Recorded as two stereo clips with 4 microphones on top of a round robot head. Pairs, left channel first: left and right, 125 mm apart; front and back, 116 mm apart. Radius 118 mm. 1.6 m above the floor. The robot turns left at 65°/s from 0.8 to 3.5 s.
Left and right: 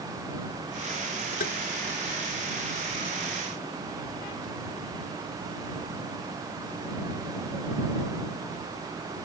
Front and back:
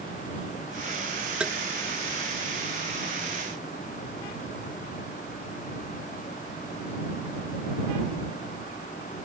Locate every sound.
1.4 s tapping: 100° left; by 1.6 s 90° left